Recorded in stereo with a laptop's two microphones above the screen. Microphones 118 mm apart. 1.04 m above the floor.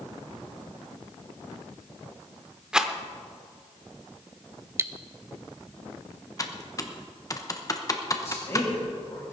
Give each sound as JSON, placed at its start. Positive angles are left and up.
{"t": 2.7, "sound": "a rattle", "side_deg": -5, "distance_m": 0.7}
{"t": 4.8, "sound": "cutlery clinking", "side_deg": -20, "distance_m": 0.6}
{"t": 6.4, "sound": "typing on a keyboard", "side_deg": 30, "distance_m": 0.9}
{"t": 8.2, "sound": "a man speaking", "side_deg": 25, "distance_m": 6.0}